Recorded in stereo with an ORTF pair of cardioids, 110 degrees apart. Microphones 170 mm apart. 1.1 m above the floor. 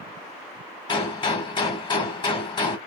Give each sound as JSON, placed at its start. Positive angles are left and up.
{"t": 0.9, "sound": "a gunshot", "azimuth_deg": 30, "distance_m": 1.6}